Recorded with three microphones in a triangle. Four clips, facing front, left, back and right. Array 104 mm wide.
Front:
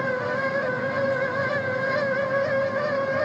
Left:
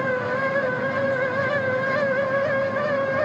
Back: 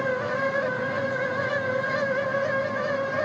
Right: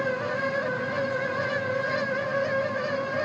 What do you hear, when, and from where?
Only background noise.